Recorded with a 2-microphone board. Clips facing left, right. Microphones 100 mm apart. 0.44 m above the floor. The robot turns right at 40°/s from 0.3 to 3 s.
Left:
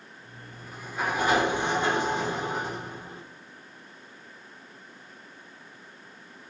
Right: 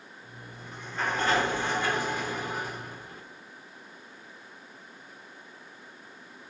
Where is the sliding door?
5° left (ahead or behind), 1.3 m; by 3.2 s 25° left (ahead or behind), 1.3 m.